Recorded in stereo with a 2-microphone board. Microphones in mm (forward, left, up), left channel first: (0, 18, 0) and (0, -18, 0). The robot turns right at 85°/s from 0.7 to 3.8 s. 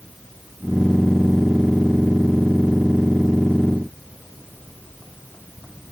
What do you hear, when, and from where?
Only background noise.